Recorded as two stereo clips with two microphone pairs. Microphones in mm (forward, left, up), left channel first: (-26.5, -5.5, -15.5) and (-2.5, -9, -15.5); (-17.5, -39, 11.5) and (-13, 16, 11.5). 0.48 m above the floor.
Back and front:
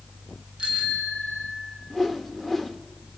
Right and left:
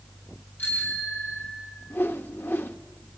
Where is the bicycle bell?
45° right, 4 m; by 1.8 s 35° right, 4.5 m.